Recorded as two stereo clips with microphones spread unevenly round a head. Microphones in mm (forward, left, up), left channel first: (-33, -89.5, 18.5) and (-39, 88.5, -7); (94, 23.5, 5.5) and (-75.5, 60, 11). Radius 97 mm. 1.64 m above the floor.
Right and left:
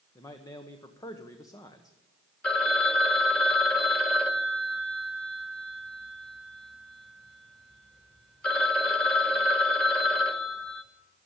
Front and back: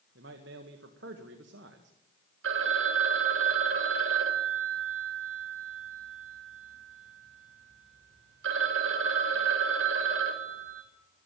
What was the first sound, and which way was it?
A man speaking, 160° right.